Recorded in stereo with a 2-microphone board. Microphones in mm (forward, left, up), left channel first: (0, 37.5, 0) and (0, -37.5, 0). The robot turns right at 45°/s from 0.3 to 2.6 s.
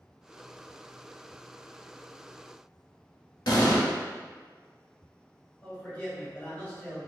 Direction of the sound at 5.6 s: 20° left (ahead or behind).